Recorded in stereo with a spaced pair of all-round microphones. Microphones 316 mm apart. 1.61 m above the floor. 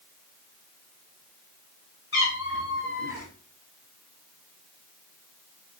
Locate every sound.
2.1 s a cat meowing: 45° left (ahead or behind), 2 m